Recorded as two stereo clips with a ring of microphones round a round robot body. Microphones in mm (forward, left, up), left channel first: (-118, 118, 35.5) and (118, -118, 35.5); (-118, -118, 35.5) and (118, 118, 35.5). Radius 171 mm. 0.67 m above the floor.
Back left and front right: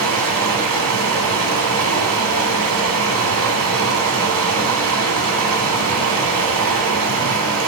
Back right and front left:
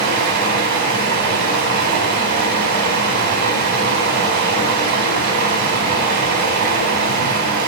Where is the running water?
5° left, 3.5 m.